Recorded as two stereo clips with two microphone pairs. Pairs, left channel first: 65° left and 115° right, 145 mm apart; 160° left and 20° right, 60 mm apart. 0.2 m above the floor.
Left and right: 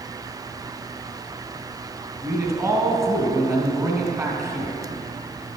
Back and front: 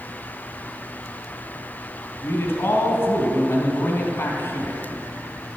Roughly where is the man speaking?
Behind.